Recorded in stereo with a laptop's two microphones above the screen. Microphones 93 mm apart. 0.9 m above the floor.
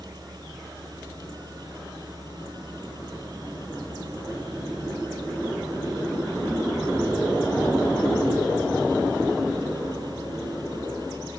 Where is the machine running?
50° right (ahead or behind).